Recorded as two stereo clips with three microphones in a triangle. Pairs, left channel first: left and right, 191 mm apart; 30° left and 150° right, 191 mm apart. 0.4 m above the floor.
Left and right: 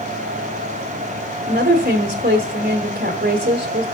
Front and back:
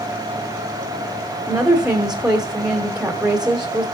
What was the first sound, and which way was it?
A woman speaking, 65° right.